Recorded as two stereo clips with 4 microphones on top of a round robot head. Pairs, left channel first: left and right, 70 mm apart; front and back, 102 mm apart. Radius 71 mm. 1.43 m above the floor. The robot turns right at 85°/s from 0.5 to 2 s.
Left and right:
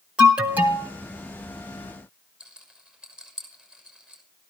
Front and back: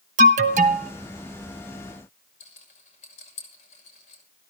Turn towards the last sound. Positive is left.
turn(degrees=-10)